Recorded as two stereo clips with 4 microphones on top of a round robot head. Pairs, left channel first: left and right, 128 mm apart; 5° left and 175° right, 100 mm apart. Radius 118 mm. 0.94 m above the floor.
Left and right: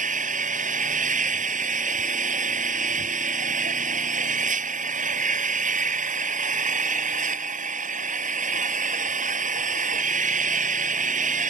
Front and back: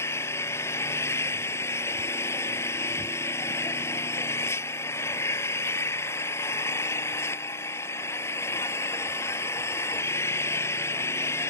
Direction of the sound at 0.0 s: 65° right.